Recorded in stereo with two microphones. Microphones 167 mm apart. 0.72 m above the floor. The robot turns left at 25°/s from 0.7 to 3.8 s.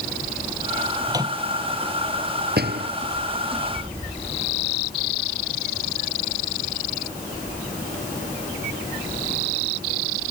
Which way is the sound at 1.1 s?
20° right (ahead or behind).